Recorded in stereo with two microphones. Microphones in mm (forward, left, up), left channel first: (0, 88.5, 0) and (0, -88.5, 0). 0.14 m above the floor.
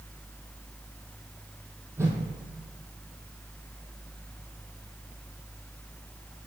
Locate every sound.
2.0 s a whoosh: 15° right (ahead or behind), 1.3 m